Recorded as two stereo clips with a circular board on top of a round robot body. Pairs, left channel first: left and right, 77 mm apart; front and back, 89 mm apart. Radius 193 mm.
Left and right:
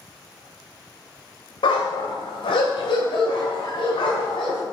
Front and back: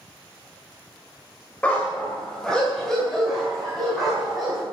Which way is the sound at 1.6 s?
75° left.